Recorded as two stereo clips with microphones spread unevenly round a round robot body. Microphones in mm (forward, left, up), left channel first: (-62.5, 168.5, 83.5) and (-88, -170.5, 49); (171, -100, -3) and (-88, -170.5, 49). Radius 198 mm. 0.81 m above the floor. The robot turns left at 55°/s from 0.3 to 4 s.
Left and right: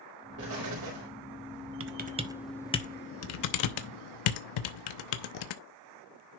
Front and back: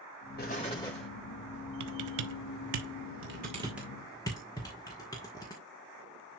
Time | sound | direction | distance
0.4 | an explosion | 35° right | 4 m
1.8 | typing on a keyboard | 145° right | 1.0 m